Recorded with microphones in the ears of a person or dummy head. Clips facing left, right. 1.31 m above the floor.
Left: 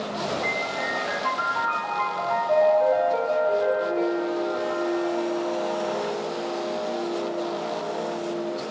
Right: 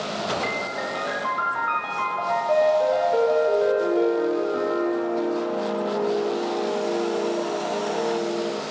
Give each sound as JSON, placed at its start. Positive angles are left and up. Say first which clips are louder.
{"t": 0.4, "sound": "a piano", "louder": "even", "side_deg": -40, "distance_m": 0.5}